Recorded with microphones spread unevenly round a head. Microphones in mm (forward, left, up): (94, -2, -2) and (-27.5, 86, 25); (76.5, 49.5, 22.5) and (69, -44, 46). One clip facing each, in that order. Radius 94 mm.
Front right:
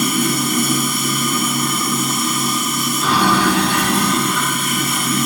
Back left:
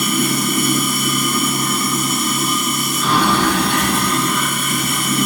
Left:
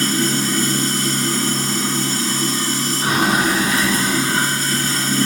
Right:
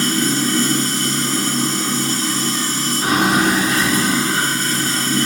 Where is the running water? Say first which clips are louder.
Even, right 1 dB; 105° right, 0.7 m.